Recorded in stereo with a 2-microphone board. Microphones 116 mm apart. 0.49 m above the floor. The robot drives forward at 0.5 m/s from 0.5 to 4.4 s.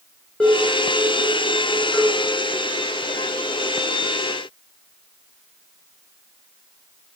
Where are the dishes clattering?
10° left (ahead or behind), 4 m.